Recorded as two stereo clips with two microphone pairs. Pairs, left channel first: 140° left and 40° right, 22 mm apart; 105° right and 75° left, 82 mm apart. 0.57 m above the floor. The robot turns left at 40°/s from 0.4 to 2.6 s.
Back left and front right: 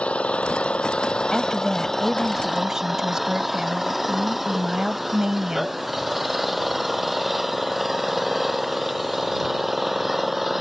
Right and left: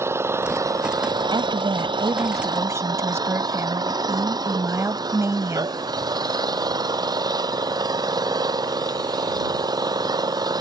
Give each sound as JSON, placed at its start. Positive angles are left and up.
{"t": 0.0, "sound": "an engine running", "azimuth_deg": 130}
{"t": 1.3, "sound": "a woman speaking", "azimuth_deg": 70}